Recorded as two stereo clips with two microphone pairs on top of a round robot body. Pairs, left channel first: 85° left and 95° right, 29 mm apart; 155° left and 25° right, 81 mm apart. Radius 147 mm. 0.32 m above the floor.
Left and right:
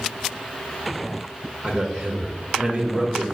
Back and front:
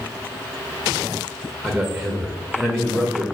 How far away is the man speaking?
About 0.9 m.